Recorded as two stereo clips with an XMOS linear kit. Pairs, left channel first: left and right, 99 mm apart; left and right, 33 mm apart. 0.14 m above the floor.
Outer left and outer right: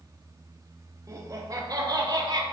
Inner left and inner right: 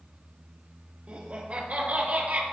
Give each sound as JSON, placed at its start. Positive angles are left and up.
{"t": 1.1, "sound": "laughter", "side_deg": -40, "distance_m": 4.0}